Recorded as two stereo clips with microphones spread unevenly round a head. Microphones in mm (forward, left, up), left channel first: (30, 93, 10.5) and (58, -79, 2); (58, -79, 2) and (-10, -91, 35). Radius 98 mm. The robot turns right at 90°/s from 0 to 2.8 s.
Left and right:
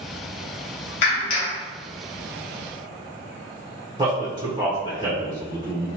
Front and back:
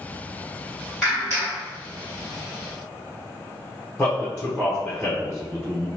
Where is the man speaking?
30° right, 0.9 m.